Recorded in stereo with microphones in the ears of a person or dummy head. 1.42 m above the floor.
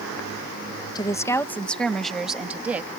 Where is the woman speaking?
25° left (ahead or behind); by 2.9 s 5° right (ahead or behind).